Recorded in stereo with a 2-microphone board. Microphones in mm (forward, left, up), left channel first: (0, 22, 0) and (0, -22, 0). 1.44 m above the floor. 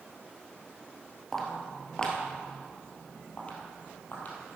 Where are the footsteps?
5° left (ahead or behind), 1.8 m; by 4.3 s 40° left (ahead or behind), 2.5 m.